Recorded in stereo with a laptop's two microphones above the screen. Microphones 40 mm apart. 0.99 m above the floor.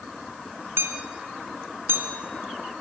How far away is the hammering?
About 3 m.